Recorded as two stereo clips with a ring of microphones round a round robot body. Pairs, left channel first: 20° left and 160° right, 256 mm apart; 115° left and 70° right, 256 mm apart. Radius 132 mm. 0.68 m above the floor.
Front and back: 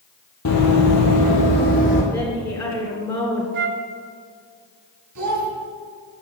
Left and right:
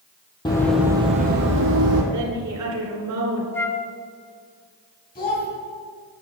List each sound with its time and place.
0.5 s running footsteps: 40° left, 1.2 m; by 2.0 s 40° right, 1.8 m
2.1 s a woman speaking: 50° right, 2.5 m
3.5 s a flute: 170° right, 0.6 m
5.2 s a child speaking: 170° left, 3 m